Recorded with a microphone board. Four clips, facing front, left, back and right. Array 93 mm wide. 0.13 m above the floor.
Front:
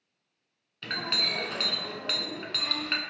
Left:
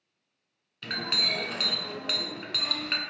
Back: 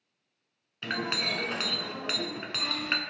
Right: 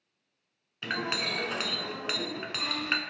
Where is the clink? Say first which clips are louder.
Right 1 dB, back 2 dB; 125° right, 0.6 m.